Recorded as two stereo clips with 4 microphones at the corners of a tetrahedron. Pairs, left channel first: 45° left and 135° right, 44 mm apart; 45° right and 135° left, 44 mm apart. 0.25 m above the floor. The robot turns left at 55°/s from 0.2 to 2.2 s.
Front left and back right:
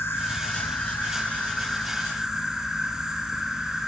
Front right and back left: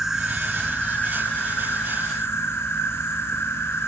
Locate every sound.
0.0 s an insect: 55° left, 0.8 m; by 3.9 s 55° right, 0.8 m